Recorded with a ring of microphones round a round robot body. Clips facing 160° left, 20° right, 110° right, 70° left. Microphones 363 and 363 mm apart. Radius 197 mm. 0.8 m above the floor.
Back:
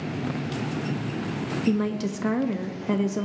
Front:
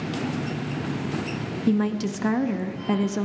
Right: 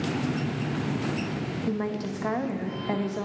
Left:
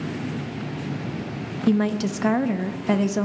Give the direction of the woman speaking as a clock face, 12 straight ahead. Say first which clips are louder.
Front 2 dB, left 10 dB; 10 o'clock.